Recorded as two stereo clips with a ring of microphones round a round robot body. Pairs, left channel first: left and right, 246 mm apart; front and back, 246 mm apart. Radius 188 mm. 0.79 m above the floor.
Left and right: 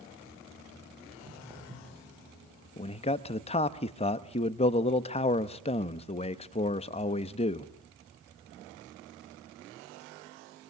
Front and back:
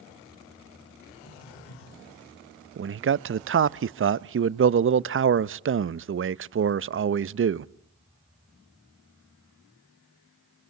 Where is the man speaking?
155° left, 0.6 m.